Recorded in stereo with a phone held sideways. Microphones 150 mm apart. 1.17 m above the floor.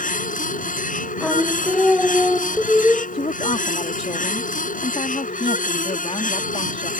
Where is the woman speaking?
45° left (ahead or behind).